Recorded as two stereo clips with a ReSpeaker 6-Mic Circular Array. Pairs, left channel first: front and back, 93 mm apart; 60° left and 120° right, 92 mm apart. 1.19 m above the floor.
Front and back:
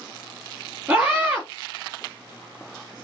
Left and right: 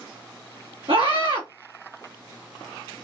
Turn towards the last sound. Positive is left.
turn(degrees=-110)